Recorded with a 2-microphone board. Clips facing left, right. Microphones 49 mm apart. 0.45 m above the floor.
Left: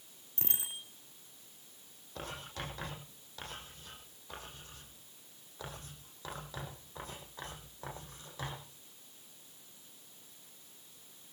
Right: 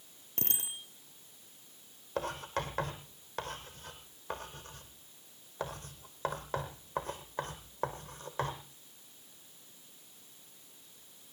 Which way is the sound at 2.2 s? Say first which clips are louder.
Right 8 dB; 50° right (ahead or behind).